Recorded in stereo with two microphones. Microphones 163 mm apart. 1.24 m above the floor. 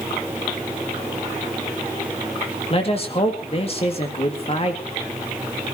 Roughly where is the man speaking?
Left.